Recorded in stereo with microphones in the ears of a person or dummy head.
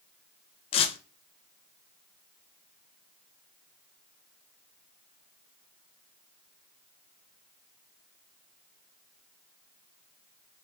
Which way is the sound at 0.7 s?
30° left (ahead or behind).